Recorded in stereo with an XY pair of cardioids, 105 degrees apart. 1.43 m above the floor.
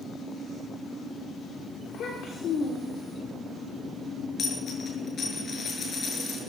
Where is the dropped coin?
45° left, 6.5 m.